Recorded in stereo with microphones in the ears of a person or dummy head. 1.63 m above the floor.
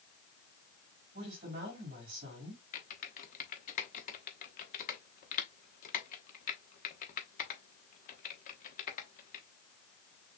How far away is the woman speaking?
About 3.5 m.